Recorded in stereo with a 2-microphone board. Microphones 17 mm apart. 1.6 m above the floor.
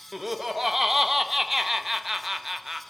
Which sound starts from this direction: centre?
Laughter, at 0.1 s.